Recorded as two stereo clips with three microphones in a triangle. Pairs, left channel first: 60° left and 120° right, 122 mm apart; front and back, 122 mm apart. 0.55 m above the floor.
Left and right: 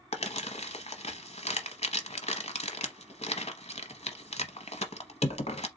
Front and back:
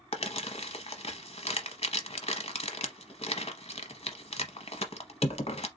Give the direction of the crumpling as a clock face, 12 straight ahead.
11 o'clock.